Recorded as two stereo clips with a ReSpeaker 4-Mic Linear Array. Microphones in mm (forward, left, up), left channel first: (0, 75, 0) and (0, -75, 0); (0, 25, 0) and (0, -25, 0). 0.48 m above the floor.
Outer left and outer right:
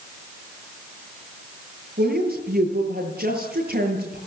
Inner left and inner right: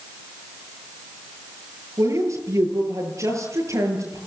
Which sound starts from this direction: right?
A woman speaking, at 2.0 s.